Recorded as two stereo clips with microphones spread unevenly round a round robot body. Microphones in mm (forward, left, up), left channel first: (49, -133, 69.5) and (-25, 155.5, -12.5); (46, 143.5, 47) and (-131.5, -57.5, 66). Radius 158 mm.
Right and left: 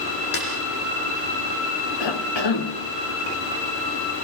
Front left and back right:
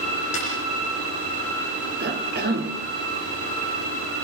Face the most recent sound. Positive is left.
turn(degrees=-75)